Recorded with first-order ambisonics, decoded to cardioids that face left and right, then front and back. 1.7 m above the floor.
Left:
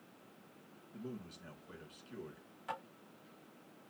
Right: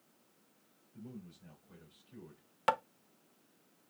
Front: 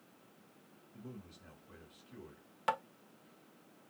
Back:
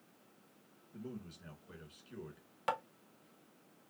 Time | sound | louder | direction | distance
0.9 | a man speaking | left 5 dB, back 4 dB | 130° left | 2.5 m
2.7 | tapping | right 12 dB, front 2 dB | 85° right | 0.5 m